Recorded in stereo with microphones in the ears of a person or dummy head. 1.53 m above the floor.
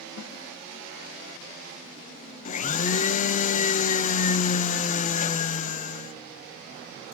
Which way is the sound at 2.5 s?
40° left (ahead or behind).